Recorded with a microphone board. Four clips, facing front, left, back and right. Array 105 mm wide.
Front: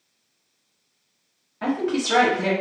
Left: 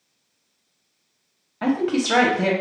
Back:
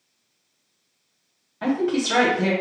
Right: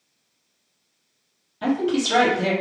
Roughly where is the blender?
No blender in this recording.